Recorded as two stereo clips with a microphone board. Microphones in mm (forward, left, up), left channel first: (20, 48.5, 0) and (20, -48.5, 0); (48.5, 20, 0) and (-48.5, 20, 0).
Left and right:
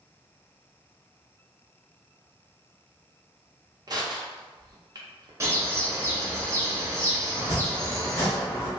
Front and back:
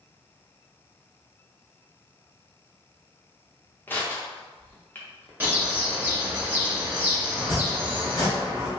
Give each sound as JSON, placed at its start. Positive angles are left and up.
{"t": 3.9, "sound": "crushing", "azimuth_deg": -65, "distance_m": 0.6}
{"t": 5.4, "sound": "a bird", "azimuth_deg": -125, "distance_m": 0.8}
{"t": 7.3, "sound": "chopping", "azimuth_deg": 35, "distance_m": 1.2}